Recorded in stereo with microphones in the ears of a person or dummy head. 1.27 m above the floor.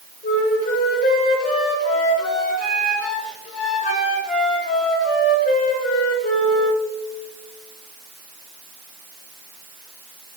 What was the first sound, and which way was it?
A flute, 45° left (ahead or behind).